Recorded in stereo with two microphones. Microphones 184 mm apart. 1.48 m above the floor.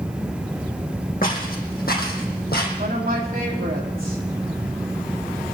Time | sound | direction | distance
1.2 | footsteps | 50° left (ahead or behind) | 3.5 m
2.8 | a woman speaking | 55° right (ahead or behind) | 3 m